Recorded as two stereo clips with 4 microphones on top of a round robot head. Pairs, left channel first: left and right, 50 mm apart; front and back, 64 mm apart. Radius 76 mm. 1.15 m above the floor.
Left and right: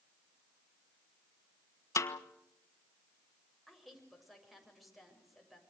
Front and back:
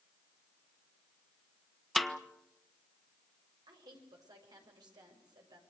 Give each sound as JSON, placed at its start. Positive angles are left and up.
{"t": 2.0, "sound": "a snare drum", "azimuth_deg": 90, "distance_m": 1.5}
{"t": 3.7, "sound": "a woman speaking", "azimuth_deg": 180, "distance_m": 6.5}